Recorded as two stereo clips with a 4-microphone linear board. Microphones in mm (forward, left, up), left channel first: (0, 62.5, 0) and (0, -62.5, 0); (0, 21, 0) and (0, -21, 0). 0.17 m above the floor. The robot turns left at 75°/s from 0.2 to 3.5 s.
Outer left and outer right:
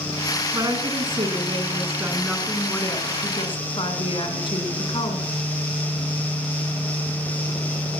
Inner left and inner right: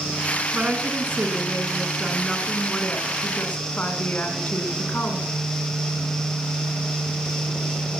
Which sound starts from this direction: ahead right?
A woman speaking, at 0.5 s.